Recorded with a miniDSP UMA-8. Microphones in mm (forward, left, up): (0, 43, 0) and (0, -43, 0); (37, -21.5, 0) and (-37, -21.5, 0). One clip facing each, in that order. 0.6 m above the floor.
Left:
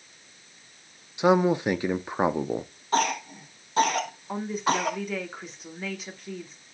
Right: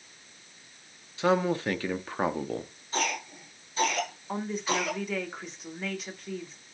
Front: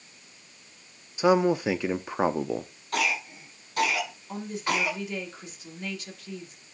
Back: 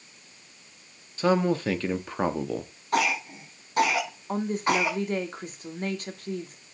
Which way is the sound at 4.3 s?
Straight behind.